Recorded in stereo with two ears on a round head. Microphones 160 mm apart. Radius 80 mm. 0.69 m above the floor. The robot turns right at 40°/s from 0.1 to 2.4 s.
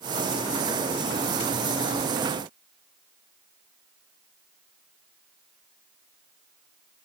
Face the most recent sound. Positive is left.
No sound to turn to.